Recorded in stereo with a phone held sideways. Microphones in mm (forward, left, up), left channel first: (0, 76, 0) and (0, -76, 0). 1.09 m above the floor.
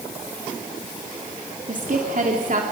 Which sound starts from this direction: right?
A woman speaking, at 1.7 s.